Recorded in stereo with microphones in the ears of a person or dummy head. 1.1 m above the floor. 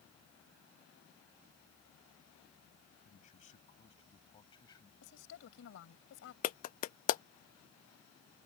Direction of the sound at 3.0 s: 45° left (ahead or behind).